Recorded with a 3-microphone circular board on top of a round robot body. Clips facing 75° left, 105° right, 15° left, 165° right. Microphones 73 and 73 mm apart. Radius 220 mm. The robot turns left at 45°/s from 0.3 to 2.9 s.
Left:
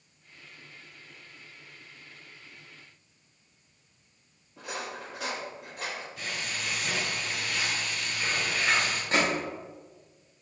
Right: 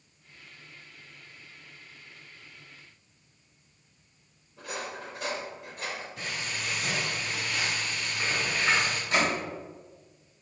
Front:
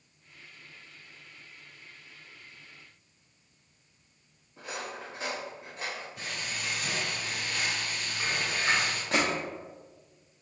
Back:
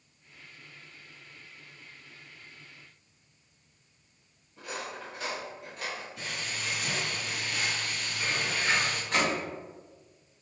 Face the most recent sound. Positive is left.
turn(degrees=20)